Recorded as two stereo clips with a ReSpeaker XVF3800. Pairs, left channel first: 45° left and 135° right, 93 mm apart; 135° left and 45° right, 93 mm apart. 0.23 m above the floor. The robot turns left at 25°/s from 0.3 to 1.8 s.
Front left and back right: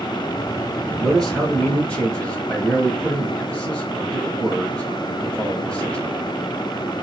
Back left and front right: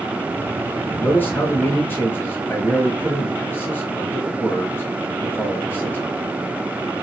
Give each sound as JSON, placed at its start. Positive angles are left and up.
{"t": 1.0, "sound": "a man speaking", "azimuth_deg": 125, "distance_m": 1.2}